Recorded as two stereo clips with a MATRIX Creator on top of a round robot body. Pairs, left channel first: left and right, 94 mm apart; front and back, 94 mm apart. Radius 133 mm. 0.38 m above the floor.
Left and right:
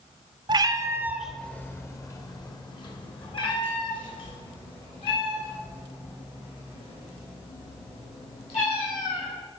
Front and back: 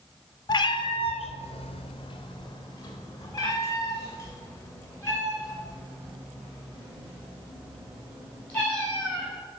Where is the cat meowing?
50° right, 0.6 m; by 9.3 s 70° left, 4.5 m.